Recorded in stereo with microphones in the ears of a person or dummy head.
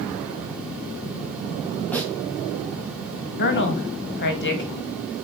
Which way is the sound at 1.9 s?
5° left (ahead or behind).